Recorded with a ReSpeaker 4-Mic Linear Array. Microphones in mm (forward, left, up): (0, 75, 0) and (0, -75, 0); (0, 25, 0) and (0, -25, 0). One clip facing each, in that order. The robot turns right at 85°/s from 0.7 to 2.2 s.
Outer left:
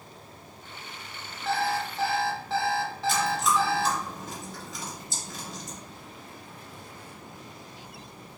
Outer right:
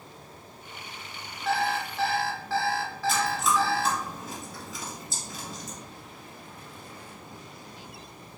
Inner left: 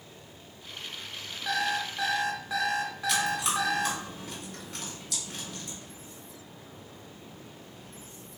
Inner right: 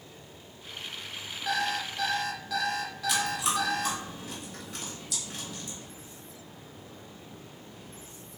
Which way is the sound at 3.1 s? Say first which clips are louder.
Even, even; centre (ahead or behind).